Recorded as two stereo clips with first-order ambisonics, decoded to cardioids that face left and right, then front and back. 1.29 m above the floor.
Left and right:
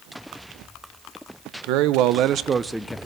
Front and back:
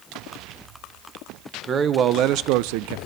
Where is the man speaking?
110° right, 0.8 m; by 3.0 s 165° left, 0.5 m.